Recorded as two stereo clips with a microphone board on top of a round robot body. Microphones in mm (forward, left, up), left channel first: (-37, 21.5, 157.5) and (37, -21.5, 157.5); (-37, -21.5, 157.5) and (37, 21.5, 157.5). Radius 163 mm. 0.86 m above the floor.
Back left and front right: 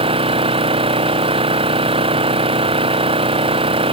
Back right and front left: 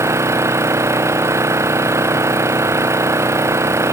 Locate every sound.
0.0 s an engine running: 30° right